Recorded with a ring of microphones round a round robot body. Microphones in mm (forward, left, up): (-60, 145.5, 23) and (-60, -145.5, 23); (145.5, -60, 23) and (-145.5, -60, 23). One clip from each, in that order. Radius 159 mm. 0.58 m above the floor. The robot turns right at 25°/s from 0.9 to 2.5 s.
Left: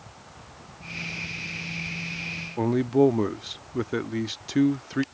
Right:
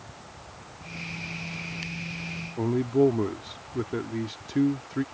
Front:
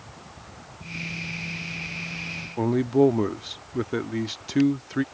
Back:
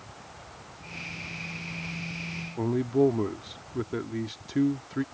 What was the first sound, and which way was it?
A man speaking, 55° left.